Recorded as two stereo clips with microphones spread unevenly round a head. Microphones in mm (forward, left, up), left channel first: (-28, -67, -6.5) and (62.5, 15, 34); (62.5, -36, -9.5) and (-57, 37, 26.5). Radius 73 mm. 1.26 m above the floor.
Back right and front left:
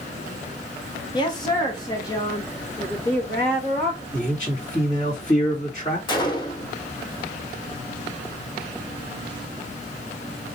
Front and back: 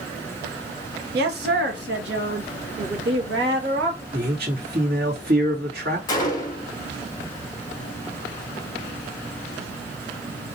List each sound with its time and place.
1.1 s a woman speaking: 170° left, 1.0 m; by 4.0 s 155° left, 2.5 m
4.1 s a man speaking: 170° left, 2.5 m
6.1 s a gunshot: 90° right, 0.9 m